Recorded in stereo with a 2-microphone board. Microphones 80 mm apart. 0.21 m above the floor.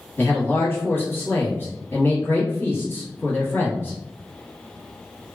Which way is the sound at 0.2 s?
25° left (ahead or behind).